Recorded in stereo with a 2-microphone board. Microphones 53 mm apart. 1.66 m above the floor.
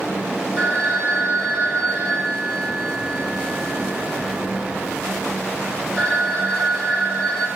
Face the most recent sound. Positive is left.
turn(degrees=10)  # may be behind; listen again after turning